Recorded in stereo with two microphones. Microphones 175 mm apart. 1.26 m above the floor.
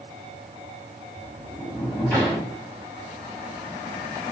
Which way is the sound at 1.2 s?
10° left (ahead or behind).